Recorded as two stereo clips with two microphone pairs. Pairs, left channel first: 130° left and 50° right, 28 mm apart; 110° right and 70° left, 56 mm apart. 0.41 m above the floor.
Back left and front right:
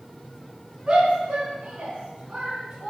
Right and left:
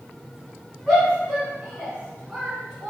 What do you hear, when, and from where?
0.9 s a shout: 15° right, 3 m; by 2.9 s 20° right, 4.5 m